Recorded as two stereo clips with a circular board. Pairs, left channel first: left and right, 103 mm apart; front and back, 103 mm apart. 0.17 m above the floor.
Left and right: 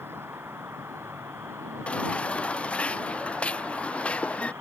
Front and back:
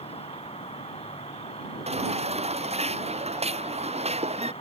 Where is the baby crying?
170° left.